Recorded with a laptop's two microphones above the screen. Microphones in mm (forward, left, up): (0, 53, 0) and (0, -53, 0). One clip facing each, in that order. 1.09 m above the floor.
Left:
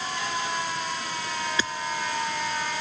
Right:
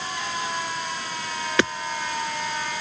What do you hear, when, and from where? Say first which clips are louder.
1.6 s hammering: right 11 dB; 70° right (ahead or behind)